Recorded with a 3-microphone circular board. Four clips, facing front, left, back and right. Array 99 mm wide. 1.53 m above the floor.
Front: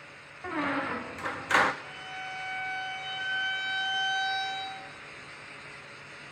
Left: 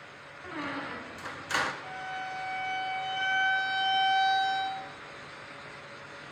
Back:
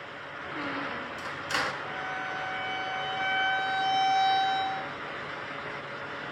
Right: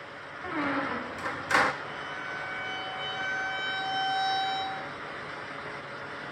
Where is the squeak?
40° right, 0.6 m.